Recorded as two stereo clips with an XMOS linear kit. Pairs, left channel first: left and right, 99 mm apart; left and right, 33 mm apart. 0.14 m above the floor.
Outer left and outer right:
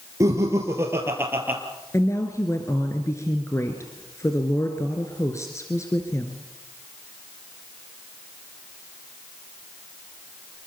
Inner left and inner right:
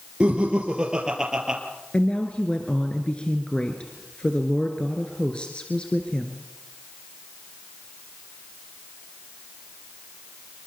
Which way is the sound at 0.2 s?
30° right (ahead or behind).